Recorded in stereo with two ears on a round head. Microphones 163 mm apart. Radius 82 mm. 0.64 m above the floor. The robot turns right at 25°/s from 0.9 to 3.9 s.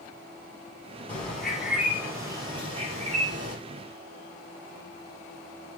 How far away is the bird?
About 4 m.